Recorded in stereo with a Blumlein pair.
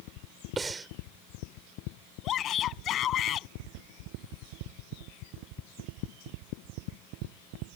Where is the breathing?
15° right.